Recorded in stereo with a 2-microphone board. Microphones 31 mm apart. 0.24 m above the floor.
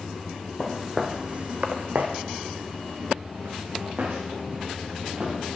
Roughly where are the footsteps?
Centre.